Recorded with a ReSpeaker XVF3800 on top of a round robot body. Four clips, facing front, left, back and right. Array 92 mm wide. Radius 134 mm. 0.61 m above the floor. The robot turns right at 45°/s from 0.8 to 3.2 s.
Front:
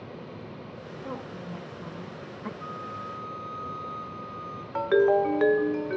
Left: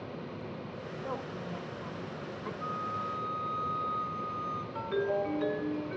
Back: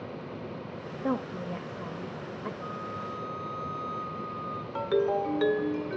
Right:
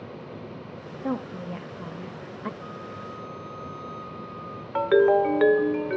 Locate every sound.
1.0 s a woman speaking: 145° right, 1.5 m; by 2.5 s 80° right, 1.5 m
2.6 s a flute: 10° left, 3 m; by 4.7 s 40° left, 3 m
4.8 s a ringtone: 60° right, 0.6 m